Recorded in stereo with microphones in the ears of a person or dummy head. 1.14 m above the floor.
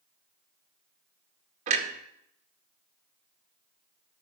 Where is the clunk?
40° right (ahead or behind), 1.8 m.